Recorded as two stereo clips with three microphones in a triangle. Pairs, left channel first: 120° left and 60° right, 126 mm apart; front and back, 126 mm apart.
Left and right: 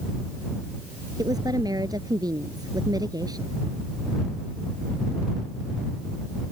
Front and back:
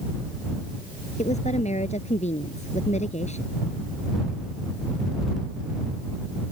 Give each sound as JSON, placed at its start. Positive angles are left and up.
{"t": 1.2, "sound": "a woman speaking", "azimuth_deg": -5}